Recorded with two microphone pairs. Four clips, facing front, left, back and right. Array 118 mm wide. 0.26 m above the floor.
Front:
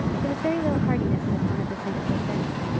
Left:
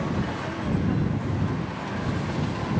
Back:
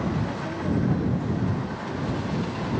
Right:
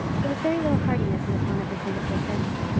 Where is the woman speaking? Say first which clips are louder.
Right 6 dB, front 5 dB; 50° right.